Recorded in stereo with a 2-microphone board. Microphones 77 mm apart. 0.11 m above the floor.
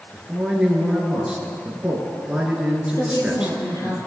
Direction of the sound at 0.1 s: 10° right (ahead or behind).